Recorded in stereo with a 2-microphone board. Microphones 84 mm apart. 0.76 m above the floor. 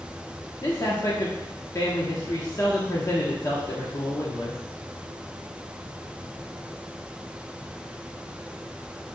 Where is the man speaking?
40° left (ahead or behind), 1.3 m.